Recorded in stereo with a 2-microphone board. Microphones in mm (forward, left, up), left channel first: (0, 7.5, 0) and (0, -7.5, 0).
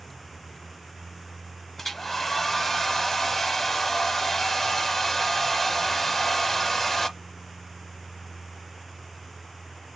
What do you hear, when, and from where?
1.8 s a hair dryer: 15° left (ahead or behind), 0.9 m